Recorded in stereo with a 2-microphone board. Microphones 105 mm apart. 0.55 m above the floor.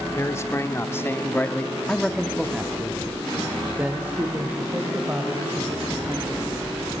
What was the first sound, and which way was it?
A man speaking, 30° left (ahead or behind).